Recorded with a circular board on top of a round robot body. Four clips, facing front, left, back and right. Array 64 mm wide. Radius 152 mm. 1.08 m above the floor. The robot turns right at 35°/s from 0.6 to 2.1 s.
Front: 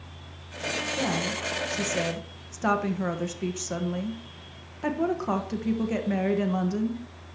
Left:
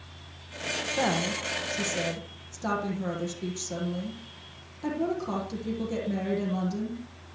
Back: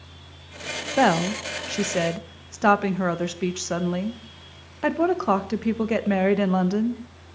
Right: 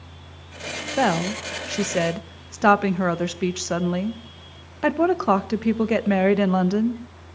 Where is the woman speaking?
155° right, 1.7 m; by 7.0 s 115° right, 1.7 m.